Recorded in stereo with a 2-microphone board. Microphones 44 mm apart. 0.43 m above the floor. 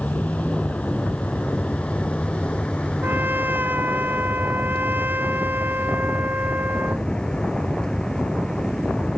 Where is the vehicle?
30° left (ahead or behind); by 9.2 s 15° left (ahead or behind).